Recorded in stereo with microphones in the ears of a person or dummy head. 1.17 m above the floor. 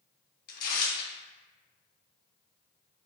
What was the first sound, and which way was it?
Tearing paper, 55° left (ahead or behind).